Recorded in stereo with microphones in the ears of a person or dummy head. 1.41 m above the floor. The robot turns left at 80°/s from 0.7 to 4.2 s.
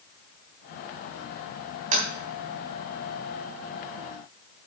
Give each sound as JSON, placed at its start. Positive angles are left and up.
{"t": 1.9, "sound": "tapping", "side_deg": -40, "distance_m": 3.5}